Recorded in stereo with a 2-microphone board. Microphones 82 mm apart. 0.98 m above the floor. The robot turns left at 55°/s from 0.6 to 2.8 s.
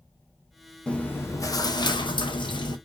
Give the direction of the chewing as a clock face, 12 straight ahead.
6 o'clock.